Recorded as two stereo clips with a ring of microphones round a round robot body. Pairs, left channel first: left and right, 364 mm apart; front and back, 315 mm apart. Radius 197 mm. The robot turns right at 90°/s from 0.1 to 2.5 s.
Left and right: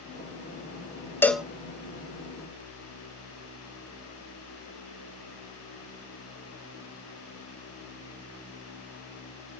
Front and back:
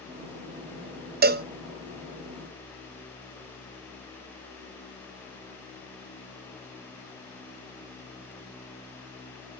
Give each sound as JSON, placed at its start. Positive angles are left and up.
{"t": 1.2, "sound": "a cowbell", "azimuth_deg": 165, "distance_m": 0.6}